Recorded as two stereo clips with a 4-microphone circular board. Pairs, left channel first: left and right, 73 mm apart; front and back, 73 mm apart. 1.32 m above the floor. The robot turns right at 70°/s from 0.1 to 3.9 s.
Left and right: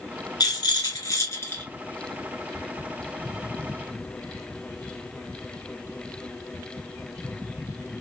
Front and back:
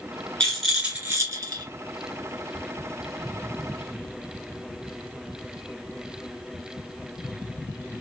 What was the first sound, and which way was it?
A rattle, 70° left.